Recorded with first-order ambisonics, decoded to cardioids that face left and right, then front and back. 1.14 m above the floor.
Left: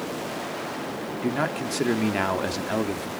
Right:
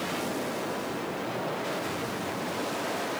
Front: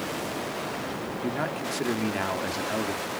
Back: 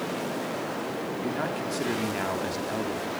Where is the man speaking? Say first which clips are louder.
Left 9 dB, front 2 dB; 85° left, 2.5 m.